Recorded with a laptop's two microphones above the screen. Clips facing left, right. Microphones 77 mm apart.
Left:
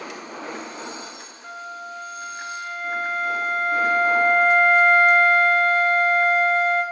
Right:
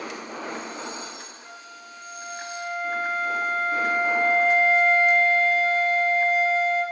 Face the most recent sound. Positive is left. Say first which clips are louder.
# left 9 dB
turn(degrees=65)  # may be behind; listen again after turning